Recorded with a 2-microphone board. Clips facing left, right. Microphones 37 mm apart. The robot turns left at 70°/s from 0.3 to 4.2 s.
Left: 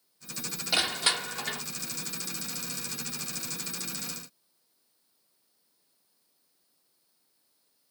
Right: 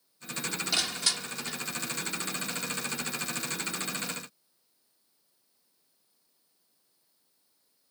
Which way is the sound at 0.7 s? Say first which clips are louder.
Left 5 dB; 155° left.